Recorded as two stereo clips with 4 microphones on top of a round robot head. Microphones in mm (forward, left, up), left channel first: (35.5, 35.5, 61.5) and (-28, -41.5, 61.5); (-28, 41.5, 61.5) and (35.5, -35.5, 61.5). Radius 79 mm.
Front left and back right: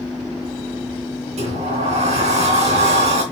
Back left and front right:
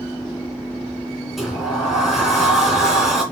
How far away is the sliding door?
About 3 m.